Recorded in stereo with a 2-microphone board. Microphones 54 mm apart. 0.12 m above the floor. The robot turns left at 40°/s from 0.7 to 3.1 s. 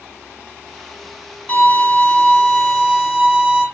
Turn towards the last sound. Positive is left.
turn(degrees=-15)  # may be behind; listen again after turning